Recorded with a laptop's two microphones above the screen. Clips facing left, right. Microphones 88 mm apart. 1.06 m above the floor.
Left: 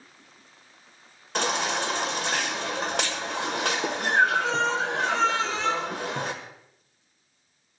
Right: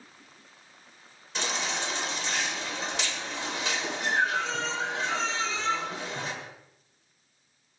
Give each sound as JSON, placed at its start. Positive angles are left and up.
{"t": 1.4, "sound": "a baby crying", "side_deg": 55, "distance_m": 1.3}